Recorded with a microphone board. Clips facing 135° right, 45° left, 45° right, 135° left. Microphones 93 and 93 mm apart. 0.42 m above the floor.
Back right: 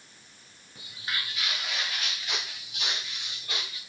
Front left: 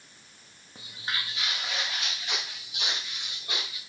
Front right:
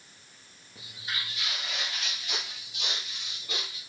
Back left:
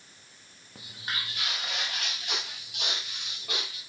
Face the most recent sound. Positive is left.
turn(degrees=120)